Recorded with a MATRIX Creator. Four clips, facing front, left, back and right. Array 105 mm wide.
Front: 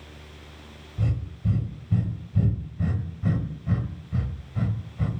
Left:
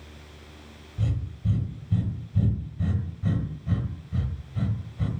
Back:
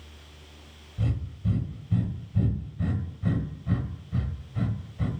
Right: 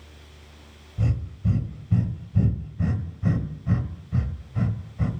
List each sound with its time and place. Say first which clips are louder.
1.0 s breathing: right 3 dB, front 2 dB; 70° right, 1.0 m